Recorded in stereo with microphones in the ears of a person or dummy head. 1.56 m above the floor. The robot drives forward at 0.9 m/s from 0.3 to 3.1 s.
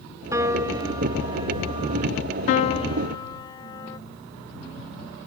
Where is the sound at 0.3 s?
15° right (ahead or behind); by 2.1 s 30° right (ahead or behind).